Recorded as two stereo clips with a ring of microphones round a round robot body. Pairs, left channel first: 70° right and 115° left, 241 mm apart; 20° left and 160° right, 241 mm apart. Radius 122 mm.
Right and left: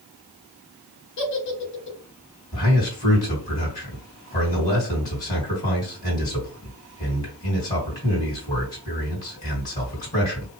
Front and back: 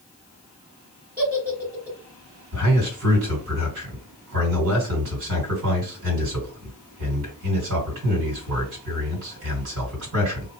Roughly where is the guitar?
I don't hear a guitar.